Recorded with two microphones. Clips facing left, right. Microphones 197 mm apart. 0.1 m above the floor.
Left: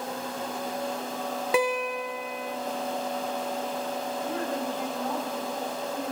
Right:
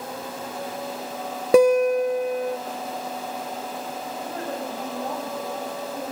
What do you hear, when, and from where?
1.5 s a guitar: 45° right (ahead or behind), 0.8 m
4.2 s a woman speaking: 35° right (ahead or behind), 8.5 m